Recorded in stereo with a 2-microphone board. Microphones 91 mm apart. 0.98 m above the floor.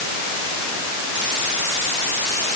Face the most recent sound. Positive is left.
No sound to turn to.